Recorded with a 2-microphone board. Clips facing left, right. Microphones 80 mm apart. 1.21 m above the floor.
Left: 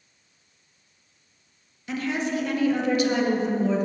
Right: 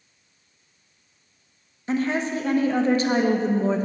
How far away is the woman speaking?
About 0.9 m.